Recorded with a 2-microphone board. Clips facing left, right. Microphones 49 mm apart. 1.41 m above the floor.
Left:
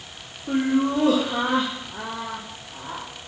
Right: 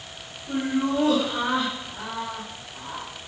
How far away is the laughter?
About 1.4 m.